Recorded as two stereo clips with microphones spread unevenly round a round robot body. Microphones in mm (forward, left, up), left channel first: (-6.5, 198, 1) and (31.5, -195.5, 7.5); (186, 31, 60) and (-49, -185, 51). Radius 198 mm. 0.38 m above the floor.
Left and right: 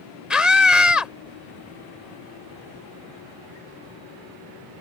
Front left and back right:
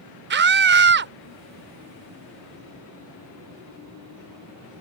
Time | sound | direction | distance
0.3 | a scream | 170° right | ?